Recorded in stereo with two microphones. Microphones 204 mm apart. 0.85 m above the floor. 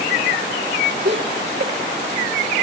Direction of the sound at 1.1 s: 65° right (ahead or behind).